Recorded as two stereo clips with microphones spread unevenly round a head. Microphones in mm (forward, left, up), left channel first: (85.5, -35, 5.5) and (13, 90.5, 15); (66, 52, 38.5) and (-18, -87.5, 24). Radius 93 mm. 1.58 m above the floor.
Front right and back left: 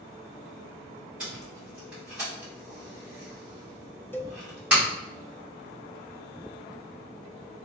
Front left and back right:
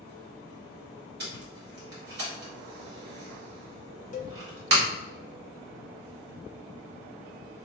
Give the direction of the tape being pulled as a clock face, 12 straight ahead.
5 o'clock.